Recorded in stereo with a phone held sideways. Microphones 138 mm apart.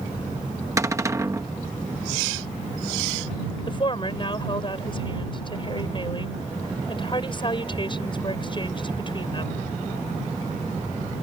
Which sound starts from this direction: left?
A woman speaking, at 3.7 s.